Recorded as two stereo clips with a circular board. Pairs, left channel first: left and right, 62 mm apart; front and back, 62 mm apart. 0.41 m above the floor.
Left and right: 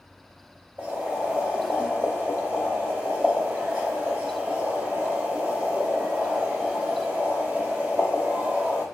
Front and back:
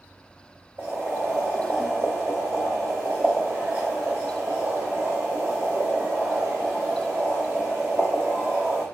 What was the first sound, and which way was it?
Boiling, 150° right.